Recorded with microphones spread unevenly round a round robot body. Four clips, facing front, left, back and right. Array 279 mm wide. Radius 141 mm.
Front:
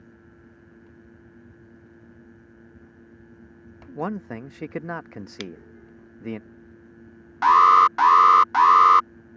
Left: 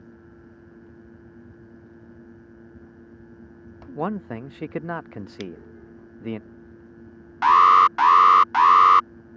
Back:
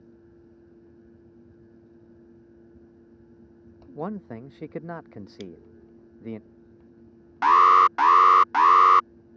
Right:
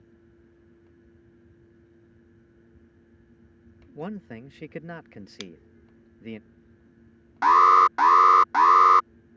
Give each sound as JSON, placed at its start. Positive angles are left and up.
{"t": 4.0, "sound": "a man speaking", "azimuth_deg": 55}
{"t": 5.4, "sound": "scissors", "azimuth_deg": -10}
{"t": 7.4, "sound": "an alarm", "azimuth_deg": -120}